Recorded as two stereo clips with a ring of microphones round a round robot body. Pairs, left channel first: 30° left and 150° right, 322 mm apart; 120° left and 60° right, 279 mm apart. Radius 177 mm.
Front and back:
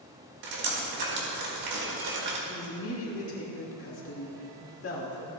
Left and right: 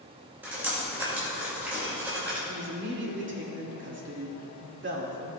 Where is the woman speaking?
15° right, 2.0 m.